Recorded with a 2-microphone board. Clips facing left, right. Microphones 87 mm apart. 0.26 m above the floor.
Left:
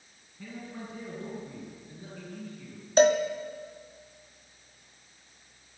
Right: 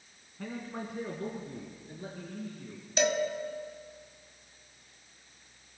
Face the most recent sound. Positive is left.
turn(degrees=45)  # may be behind; listen again after turning